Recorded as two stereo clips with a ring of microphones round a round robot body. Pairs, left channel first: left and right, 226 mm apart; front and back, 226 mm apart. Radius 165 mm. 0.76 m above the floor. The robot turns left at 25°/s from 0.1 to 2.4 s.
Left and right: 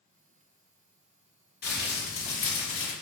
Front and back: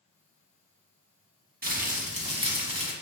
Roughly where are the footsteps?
I don't hear footsteps.